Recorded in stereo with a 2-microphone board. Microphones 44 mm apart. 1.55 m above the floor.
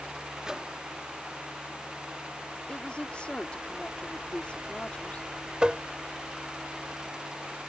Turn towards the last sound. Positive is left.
turn(degrees=-20)  # may be behind; listen again after turning